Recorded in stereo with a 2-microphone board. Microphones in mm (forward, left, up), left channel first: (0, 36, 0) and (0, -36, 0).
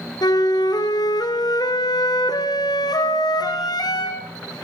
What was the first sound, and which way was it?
A flute, 70° left (ahead or behind).